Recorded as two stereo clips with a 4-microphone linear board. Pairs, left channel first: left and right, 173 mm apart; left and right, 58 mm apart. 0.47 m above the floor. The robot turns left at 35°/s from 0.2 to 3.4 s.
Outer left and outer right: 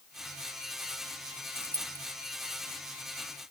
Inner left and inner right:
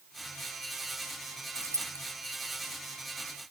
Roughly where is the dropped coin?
Right.